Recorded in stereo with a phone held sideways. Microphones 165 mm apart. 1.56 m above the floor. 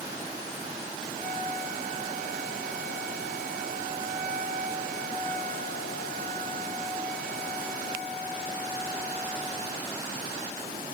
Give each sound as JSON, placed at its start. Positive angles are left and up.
{"t": 1.1, "sound": "a flute", "side_deg": 85, "distance_m": 9.5}